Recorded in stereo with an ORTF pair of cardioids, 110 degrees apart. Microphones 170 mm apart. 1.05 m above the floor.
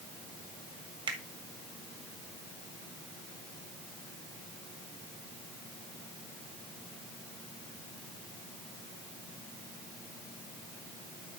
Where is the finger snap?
30° right, 1.9 m.